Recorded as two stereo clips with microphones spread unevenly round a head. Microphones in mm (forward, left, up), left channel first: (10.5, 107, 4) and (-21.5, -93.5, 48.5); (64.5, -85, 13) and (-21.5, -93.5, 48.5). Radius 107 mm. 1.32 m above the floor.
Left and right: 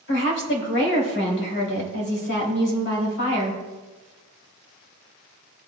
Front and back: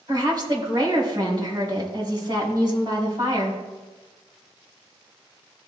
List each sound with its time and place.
0.1 s a woman speaking: 115° left, 3 m